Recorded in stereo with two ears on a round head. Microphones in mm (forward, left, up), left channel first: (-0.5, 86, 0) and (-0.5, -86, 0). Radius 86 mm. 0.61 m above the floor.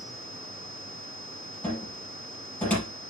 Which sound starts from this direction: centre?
A cupboard door, at 1.6 s.